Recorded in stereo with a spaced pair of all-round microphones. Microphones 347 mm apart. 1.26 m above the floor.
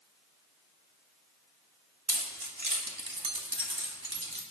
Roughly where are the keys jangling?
Right.